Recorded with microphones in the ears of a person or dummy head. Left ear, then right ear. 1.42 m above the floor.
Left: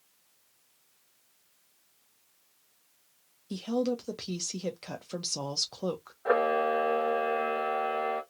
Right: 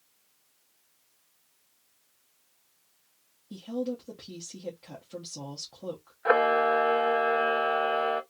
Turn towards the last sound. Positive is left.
turn(degrees=-40)  # may be behind; listen again after turning